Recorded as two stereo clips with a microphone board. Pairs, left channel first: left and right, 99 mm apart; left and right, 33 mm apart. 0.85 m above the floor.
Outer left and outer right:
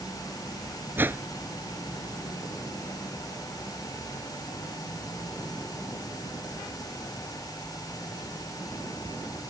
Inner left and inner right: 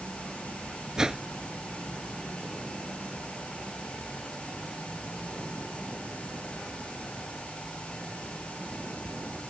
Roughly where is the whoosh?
Right.